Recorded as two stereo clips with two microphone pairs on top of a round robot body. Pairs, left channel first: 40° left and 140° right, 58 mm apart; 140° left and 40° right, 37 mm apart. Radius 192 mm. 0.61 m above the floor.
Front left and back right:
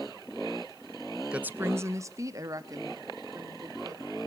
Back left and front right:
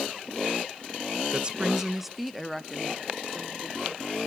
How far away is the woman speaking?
About 0.9 m.